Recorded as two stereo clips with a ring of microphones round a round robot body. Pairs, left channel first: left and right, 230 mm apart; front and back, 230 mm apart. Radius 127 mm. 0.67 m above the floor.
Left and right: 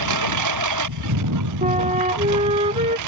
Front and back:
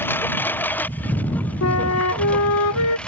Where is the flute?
25° right.